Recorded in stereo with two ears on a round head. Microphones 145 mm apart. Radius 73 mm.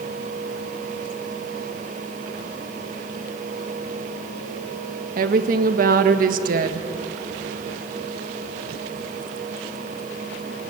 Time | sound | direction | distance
5.2 | a woman speaking | 60° right (ahead or behind) | 1.6 m